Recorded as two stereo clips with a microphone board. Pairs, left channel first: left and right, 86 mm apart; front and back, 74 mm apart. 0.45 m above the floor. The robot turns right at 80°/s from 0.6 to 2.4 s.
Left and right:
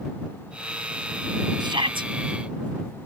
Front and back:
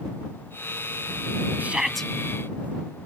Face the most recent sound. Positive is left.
turn(degrees=-55)